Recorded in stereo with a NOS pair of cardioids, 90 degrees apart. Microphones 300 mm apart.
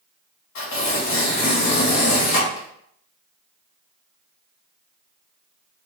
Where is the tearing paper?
65° left, 2.0 m.